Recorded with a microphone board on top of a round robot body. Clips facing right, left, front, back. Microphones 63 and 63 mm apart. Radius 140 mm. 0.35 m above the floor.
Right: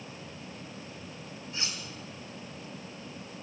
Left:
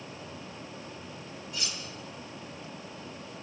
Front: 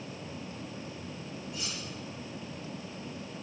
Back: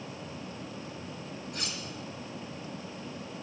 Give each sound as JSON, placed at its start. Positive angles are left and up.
{"t": 1.5, "sound": "cutlery clinking", "azimuth_deg": -150, "distance_m": 2.0}